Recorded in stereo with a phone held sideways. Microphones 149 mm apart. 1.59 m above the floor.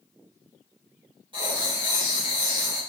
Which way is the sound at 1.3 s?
35° right (ahead or behind).